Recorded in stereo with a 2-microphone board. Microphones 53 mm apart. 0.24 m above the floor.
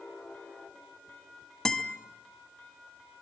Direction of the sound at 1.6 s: 10° left (ahead or behind).